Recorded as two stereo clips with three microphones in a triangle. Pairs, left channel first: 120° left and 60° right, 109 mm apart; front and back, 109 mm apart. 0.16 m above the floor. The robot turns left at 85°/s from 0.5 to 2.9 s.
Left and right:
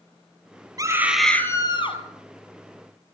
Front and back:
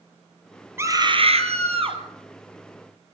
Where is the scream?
115° right, 3 m; by 2.0 s 145° left, 3 m.